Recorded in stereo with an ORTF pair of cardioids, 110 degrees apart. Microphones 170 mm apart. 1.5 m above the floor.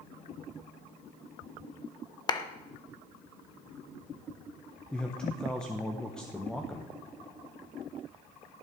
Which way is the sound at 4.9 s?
5° left.